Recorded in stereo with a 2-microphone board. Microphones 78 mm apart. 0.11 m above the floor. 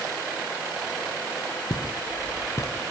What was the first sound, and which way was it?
Footsteps, 55° left (ahead or behind).